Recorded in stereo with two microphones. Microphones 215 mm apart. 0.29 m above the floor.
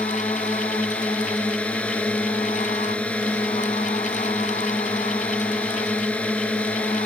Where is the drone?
5° left (ahead or behind).